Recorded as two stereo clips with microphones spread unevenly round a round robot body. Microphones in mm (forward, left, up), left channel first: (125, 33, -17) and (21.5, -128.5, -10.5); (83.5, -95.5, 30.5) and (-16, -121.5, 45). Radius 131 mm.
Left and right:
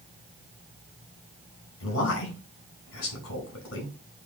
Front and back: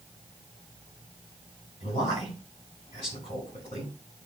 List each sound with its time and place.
1.8 s a man speaking: 75° left, 4.5 m